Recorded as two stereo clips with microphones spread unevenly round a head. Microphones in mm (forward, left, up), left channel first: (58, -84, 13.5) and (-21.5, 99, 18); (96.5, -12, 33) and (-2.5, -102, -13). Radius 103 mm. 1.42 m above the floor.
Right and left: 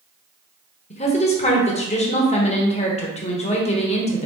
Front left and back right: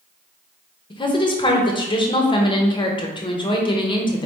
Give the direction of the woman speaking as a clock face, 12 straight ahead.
12 o'clock.